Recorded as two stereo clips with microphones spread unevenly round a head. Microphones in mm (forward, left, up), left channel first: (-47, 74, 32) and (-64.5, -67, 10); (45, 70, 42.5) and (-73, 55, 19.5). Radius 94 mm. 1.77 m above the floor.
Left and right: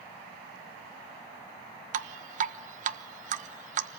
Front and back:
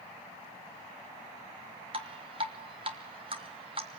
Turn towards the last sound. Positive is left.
turn(degrees=-110)